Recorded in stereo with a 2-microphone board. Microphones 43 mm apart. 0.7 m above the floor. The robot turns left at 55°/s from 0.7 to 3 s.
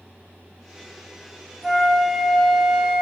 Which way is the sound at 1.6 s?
160° right.